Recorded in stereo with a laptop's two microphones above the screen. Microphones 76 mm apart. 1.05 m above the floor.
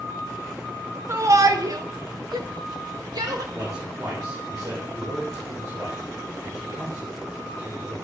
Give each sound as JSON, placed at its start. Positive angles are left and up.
{"t": 1.1, "sound": "a shout", "side_deg": -40, "distance_m": 1.4}
{"t": 3.5, "sound": "a man speaking", "side_deg": -50, "distance_m": 4.0}